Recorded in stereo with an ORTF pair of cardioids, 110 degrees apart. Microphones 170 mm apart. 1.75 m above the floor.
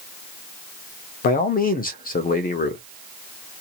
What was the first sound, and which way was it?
A man speaking, 60° left.